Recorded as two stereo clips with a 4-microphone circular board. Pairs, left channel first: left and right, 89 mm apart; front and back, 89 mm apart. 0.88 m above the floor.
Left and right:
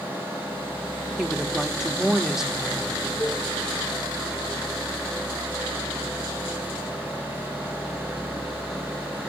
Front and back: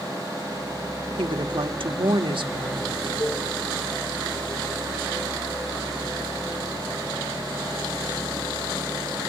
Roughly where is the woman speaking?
Behind.